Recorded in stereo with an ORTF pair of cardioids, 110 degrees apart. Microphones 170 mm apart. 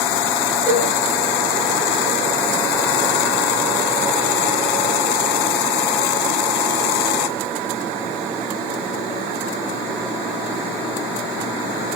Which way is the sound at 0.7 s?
10° right.